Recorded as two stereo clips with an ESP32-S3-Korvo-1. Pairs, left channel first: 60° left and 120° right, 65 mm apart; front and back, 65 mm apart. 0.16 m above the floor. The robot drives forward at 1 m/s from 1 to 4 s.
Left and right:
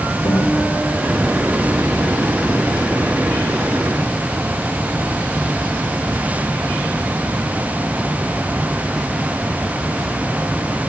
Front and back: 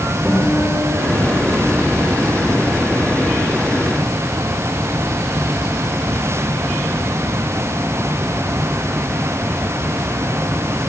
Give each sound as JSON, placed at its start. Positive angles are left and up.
{"t": 0.2, "sound": "a guitar", "azimuth_deg": 75, "distance_m": 10.0}